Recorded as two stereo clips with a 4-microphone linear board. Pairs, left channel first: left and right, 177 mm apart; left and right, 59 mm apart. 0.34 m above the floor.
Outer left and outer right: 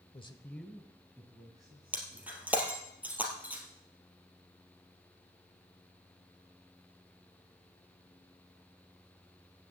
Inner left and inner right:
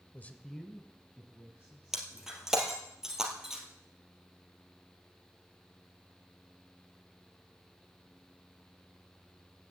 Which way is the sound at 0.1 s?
30° left (ahead or behind).